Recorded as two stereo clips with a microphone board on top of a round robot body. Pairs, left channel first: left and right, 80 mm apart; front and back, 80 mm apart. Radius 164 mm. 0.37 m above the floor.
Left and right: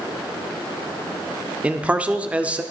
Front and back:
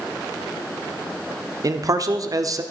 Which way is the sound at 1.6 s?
160° right.